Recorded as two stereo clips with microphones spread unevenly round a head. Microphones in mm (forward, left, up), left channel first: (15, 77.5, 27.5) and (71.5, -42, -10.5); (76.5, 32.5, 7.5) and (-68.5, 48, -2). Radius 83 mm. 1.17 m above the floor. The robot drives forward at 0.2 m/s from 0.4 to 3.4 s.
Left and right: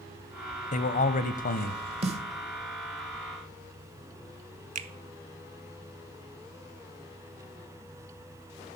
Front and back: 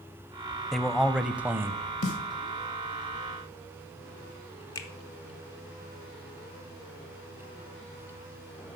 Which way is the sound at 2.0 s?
25° right.